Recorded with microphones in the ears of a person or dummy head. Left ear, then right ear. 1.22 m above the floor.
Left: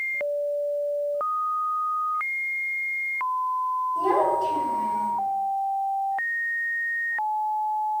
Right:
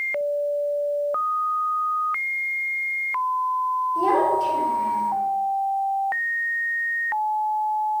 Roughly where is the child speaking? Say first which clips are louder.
Right 2 dB; right.